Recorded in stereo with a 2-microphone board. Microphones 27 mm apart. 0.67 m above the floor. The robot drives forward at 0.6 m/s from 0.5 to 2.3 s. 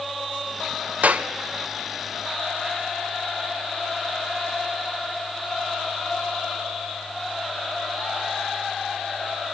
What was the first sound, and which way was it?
A clap, 80° right.